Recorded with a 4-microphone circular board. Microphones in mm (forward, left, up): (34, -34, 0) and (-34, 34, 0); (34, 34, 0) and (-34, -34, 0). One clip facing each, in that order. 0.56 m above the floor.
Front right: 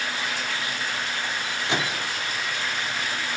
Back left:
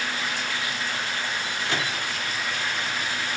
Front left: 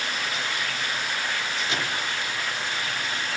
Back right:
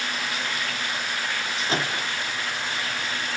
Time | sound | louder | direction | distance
1.7 | a microwave | front right 3 dB, back right 5 dB | 105° right | 1.2 m